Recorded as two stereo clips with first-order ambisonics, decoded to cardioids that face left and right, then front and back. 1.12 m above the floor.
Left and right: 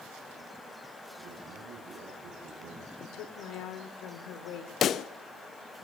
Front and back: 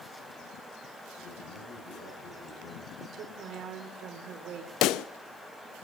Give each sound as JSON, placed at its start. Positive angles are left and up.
{"t": 1.2, "sound": "a man speaking", "azimuth_deg": -40, "distance_m": 10.0}
{"t": 3.0, "sound": "a woman speaking", "azimuth_deg": 125, "distance_m": 3.0}
{"t": 4.8, "sound": "a pop", "azimuth_deg": 35, "distance_m": 0.6}